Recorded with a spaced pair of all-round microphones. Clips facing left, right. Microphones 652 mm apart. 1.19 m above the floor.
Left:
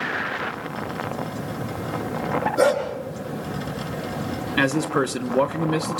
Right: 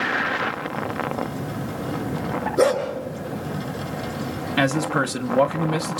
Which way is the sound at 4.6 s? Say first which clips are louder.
Left 1 dB; 15° right (ahead or behind).